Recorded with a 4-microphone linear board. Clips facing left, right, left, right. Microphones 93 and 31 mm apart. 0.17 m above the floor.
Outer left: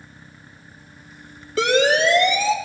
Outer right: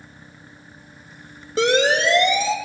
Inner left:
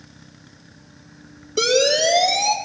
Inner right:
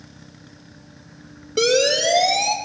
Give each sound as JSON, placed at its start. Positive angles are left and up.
{"t": 1.6, "sound": "a siren", "side_deg": -30, "distance_m": 4.0}